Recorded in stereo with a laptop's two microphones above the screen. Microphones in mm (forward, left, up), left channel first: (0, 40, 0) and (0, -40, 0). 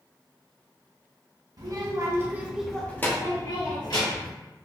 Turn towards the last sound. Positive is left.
turn(degrees=65)  # may be behind; listen again after turning